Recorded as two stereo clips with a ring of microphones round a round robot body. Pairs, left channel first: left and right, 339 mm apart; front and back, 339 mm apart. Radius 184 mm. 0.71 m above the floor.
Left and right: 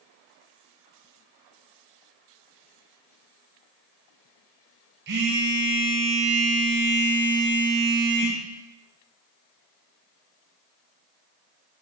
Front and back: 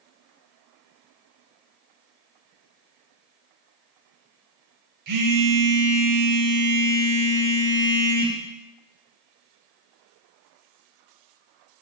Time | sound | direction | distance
5.1 | a phone buzzing | 150° right | 2 m